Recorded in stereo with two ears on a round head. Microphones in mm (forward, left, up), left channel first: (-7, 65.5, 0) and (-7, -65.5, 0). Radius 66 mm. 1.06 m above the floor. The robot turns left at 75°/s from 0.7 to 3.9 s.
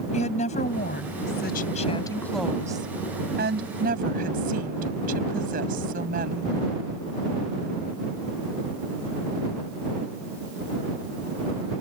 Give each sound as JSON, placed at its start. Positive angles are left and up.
{"t": 0.1, "sound": "a woman speaking", "azimuth_deg": 125}